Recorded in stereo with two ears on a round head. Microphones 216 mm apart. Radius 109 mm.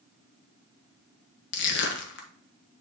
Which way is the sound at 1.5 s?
50° left (ahead or behind).